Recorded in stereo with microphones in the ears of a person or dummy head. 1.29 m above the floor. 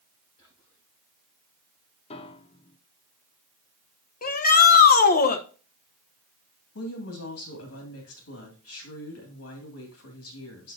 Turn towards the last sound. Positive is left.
turn(degrees=75)  # may be behind; listen again after turning